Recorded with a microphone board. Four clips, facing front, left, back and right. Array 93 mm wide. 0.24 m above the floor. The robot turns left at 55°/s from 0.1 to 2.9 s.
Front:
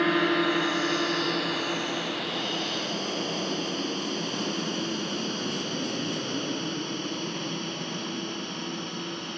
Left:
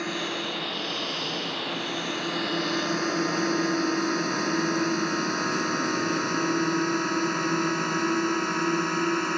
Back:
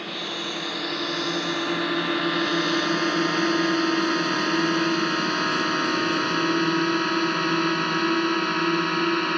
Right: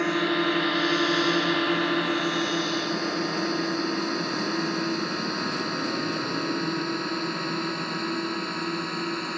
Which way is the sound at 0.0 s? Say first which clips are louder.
Right 7 dB, front 9 dB; 30° right.